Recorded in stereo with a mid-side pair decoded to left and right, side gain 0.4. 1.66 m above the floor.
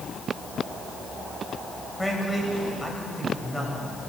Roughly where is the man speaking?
Ahead.